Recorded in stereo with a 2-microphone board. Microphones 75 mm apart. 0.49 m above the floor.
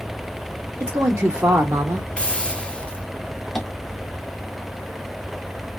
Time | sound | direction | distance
0.8 | a woman speaking | 45° right (ahead or behind) | 1.2 m
2.2 | a hiss | 15° left (ahead or behind) | 0.6 m
3.5 | tapping | 5° left (ahead or behind) | 1.2 m